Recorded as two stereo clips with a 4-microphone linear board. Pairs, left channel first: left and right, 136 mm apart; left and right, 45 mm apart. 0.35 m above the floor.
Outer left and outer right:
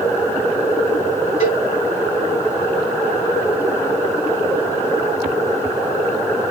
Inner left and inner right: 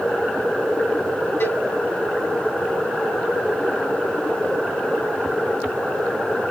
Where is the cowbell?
65° left (ahead or behind), 3 m.